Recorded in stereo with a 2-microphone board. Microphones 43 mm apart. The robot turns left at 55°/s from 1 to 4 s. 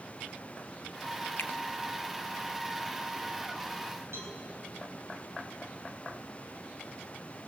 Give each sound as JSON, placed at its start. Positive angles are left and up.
{"t": 1.4, "sound": "a finger snap", "side_deg": 50, "distance_m": 1.0}
{"t": 4.1, "sound": "a cowbell", "side_deg": -70, "distance_m": 6.5}